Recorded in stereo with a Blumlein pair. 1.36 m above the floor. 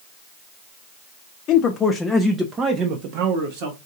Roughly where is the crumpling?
I don't hear crumpling.